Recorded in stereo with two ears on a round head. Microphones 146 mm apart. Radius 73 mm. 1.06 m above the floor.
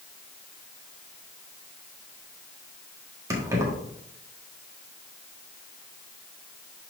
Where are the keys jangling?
20° right (ahead or behind), 1.6 m.